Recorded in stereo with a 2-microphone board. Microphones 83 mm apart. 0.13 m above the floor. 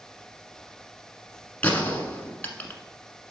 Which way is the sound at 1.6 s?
20° left (ahead or behind).